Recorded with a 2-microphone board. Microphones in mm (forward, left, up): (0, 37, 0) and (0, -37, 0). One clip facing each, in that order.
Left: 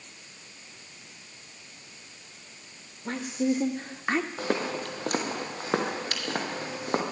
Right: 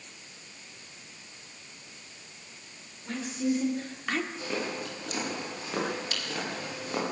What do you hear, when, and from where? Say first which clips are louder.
3.0 s a woman speaking: left 2 dB; 55° left (ahead or behind), 1.7 m; by 4.3 s 25° left (ahead or behind), 1.1 m
4.4 s footsteps: left 4 dB; 65° left (ahead or behind), 4.5 m; by 7.0 s 45° left (ahead or behind), 5.5 m